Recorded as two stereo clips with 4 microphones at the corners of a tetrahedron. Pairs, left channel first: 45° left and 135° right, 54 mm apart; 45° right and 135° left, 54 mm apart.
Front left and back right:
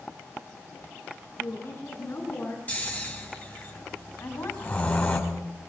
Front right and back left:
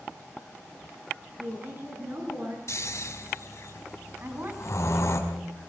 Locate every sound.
1.4 s a woman speaking: 90° left, 9.5 m
2.7 s snoring: 20° right, 5 m
4.2 s a woman speaking: 85° left, 3.5 m